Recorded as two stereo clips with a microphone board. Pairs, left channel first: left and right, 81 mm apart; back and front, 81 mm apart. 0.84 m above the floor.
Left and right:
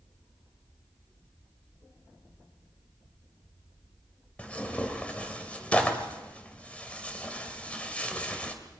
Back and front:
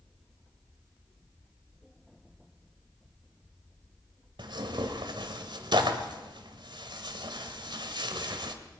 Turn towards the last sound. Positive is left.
turn(degrees=15)